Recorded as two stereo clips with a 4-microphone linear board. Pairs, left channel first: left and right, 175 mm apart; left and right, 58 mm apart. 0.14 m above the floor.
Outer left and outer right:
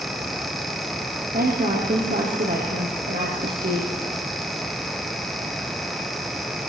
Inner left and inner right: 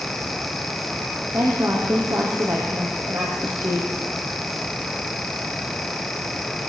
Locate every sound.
1.3 s a woman speaking: 60° right (ahead or behind), 4.5 m